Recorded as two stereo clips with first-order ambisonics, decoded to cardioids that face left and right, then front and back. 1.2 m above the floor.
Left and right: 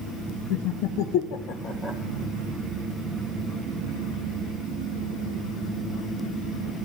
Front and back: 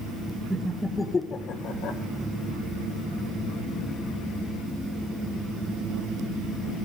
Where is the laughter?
100° left, 1.3 m; by 2.0 s 20° left, 1.0 m.